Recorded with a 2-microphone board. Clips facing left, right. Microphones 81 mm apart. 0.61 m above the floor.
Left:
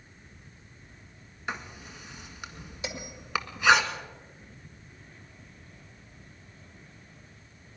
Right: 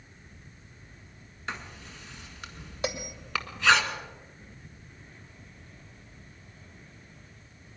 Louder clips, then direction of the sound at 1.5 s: Left 2 dB; 10° left (ahead or behind).